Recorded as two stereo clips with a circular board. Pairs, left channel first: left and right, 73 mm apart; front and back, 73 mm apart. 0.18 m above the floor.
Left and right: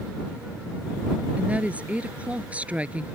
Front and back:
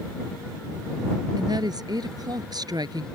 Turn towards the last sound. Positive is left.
turn(degrees=-160)